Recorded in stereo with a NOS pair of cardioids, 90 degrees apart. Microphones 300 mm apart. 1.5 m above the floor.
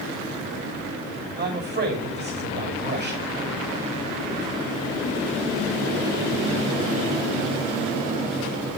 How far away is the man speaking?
About 6 m.